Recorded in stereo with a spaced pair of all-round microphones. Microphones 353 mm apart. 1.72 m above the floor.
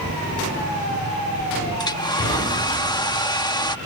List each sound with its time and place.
1.8 s a hair dryer: 10° left (ahead or behind)